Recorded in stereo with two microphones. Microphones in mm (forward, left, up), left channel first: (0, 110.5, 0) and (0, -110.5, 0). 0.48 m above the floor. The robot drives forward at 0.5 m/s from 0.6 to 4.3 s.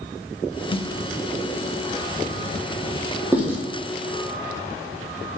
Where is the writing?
5° right (ahead or behind), 3 m.